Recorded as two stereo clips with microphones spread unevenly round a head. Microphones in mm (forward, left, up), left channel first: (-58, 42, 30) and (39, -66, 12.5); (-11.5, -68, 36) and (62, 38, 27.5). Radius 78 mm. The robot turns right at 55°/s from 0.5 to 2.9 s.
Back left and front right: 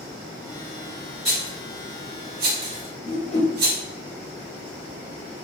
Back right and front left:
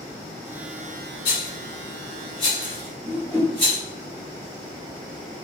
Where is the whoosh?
170° left, 1.3 m.